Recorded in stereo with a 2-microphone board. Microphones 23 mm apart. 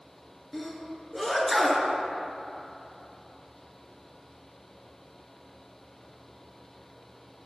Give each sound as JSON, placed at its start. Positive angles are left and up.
{"t": 0.5, "sound": "a sneeze", "side_deg": 0, "distance_m": 1.4}